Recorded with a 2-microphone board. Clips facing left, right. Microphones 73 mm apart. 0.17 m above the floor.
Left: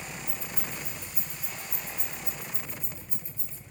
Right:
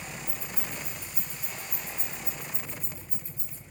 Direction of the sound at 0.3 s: 45° right (ahead or behind).